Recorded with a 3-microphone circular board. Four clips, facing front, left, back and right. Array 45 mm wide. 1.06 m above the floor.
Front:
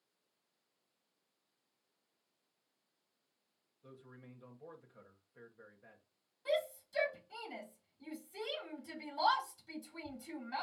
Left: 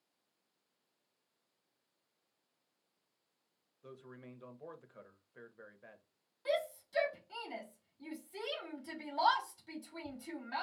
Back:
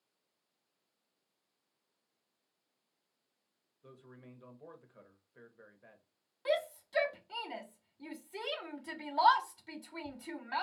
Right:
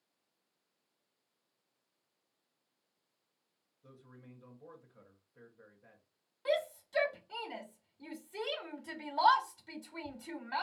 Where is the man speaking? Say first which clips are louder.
Left 5 dB, back 1 dB; 100° left, 1.1 m.